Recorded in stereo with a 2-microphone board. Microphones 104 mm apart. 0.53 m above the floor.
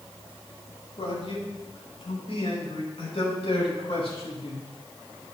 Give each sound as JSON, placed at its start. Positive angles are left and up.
{"t": 1.0, "sound": "a man speaking", "side_deg": 70, "distance_m": 4.0}